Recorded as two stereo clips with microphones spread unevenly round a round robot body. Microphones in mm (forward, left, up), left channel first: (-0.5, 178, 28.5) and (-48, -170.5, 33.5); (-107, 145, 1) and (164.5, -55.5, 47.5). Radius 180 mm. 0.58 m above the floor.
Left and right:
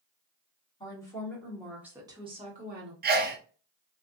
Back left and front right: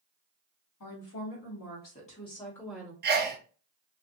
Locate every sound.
0.8 s a woman speaking: 155° left, 1.7 m; by 2.9 s 130° right, 1.2 m
3.0 s a sneeze: 80° right, 0.6 m